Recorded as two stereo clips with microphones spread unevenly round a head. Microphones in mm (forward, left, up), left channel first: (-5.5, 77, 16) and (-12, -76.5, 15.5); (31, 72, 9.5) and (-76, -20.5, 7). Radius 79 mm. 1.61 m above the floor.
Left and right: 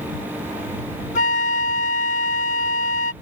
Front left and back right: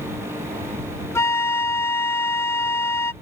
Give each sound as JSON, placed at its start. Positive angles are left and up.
{"t": 1.1, "sound": "a flute", "azimuth_deg": 105}